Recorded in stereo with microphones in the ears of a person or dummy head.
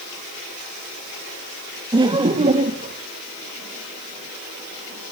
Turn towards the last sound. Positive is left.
turn(degrees=-40)  # may be behind; listen again after turning